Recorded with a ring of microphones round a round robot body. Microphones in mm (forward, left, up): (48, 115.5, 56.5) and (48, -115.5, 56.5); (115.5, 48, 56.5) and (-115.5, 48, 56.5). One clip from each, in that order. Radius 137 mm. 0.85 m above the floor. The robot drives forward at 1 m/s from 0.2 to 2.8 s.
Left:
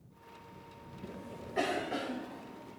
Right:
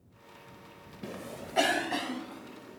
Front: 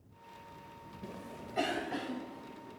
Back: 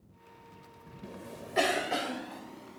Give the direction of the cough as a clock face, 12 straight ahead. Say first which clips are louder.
Right 5 dB, back 2 dB; 3 o'clock.